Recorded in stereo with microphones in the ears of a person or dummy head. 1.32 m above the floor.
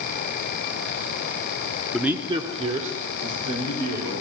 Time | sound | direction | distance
1.9 | a man speaking | centre (ahead or behind) | 0.9 m